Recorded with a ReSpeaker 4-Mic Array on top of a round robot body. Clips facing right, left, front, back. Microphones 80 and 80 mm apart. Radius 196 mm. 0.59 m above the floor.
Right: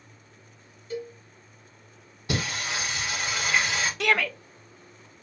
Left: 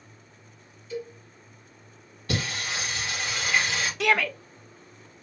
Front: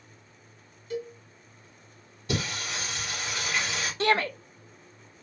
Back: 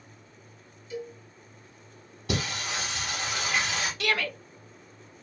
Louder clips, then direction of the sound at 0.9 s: Right 1 dB, front 3 dB; 45° right.